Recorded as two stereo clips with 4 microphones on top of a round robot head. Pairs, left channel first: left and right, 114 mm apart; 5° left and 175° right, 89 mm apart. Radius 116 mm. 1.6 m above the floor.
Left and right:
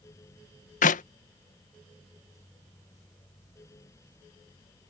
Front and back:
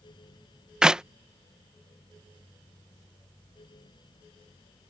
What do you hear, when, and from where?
0.8 s a clap: 105° left